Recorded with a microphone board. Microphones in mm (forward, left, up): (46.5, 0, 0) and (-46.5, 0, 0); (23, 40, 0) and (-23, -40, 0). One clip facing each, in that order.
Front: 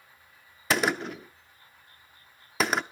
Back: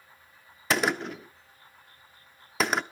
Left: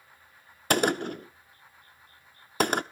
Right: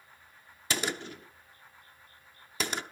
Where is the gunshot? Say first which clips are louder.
Even, left 9 dB; 90° left, 0.6 m.